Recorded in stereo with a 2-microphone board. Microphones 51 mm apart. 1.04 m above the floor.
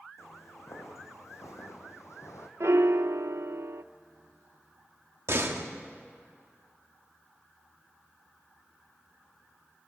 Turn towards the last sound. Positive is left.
turn(degrees=-60)  # may be behind; listen again after turning